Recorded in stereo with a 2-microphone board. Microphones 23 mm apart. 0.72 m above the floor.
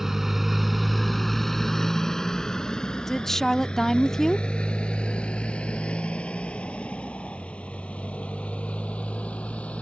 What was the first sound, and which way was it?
A motorcycle, 15° right (ahead or behind).